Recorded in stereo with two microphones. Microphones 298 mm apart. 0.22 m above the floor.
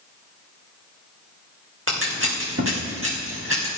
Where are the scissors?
45° right (ahead or behind), 3 m.